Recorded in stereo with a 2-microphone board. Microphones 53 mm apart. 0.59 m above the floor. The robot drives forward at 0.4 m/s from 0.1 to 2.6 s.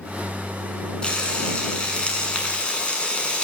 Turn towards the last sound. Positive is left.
turn(degrees=20)  # may be behind; listen again after turning